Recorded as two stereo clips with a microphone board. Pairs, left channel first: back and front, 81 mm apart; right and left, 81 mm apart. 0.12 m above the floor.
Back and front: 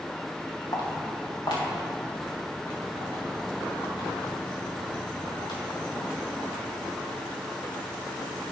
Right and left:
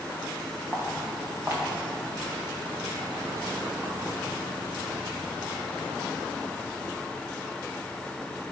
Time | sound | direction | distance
0.7 | footsteps | 155° left | 2 m